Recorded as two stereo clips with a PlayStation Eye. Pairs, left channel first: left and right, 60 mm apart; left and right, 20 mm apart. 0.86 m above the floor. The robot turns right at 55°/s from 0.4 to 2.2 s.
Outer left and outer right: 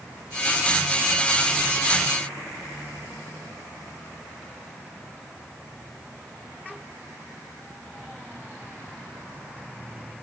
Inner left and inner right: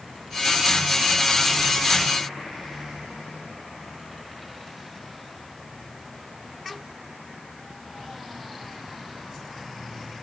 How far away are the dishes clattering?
No dishes clattering in this recording.